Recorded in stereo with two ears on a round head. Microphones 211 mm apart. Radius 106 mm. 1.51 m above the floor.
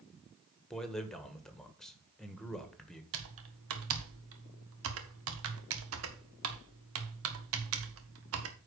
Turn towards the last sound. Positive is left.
turn(degrees=-65)  # may be behind; listen again after turning